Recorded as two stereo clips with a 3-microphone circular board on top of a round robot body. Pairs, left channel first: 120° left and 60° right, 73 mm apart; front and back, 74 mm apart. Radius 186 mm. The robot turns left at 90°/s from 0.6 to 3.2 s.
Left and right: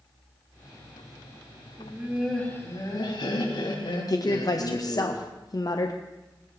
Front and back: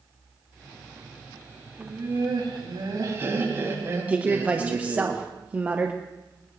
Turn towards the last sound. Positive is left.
turn(degrees=115)